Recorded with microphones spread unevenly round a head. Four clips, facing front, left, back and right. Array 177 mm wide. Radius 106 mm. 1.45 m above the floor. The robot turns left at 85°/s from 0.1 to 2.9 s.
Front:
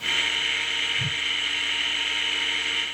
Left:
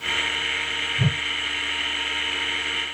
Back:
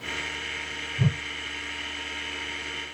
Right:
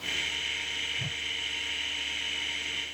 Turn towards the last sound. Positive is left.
turn(degrees=-30)